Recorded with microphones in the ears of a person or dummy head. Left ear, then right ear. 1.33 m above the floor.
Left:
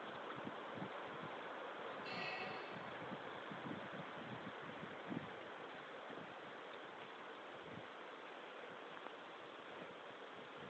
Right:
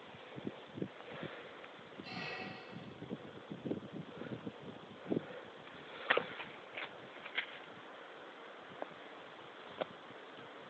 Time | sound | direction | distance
2.0 | a squeak | 5° right (ahead or behind) | ?